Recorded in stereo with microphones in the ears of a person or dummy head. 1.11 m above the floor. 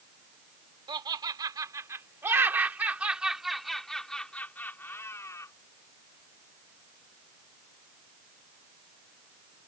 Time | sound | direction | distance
0.9 | laughter | 25° right (ahead or behind) | ?